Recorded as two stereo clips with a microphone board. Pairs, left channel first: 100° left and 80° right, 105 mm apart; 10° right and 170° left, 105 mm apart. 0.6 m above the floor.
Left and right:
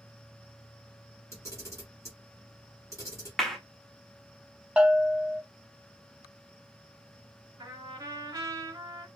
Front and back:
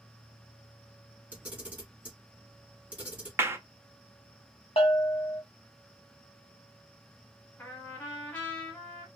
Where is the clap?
Straight behind, 0.5 m.